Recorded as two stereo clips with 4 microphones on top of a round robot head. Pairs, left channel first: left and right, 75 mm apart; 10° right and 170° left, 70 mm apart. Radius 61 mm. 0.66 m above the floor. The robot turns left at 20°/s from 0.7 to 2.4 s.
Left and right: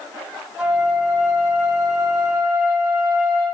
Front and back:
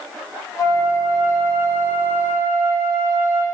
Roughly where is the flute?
Ahead right.